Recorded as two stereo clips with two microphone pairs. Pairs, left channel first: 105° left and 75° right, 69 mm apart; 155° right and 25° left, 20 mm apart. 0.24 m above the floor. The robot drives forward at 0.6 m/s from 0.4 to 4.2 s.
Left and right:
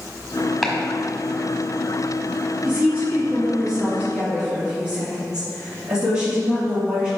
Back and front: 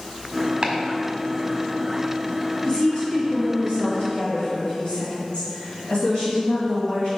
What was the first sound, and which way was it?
Chopping, 10° left.